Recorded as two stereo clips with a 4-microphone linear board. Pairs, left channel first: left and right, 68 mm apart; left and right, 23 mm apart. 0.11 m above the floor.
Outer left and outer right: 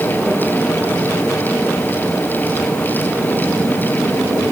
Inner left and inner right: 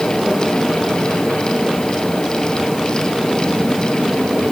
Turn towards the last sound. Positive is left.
No sound to turn to.